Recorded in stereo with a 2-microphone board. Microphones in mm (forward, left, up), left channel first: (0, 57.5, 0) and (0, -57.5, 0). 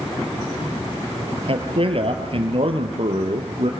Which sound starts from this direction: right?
A man speaking, at 1.5 s.